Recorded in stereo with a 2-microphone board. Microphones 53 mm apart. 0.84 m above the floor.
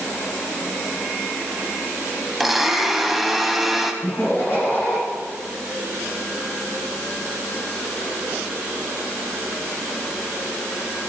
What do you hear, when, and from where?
2.4 s a blender: 5° right (ahead or behind), 0.9 m
4.0 s laughter: 50° left (ahead or behind), 5 m